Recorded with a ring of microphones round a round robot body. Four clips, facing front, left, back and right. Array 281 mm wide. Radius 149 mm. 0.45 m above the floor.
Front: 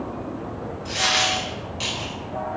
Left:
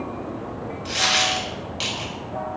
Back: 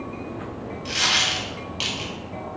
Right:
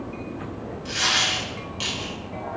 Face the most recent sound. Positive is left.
turn(degrees=145)